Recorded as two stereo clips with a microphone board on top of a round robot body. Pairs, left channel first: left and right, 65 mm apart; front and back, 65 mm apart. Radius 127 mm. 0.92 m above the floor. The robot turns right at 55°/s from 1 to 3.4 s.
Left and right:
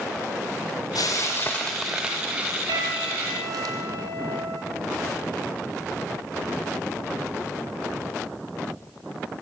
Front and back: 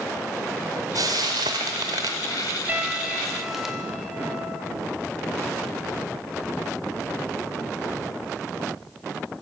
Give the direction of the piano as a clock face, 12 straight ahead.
4 o'clock.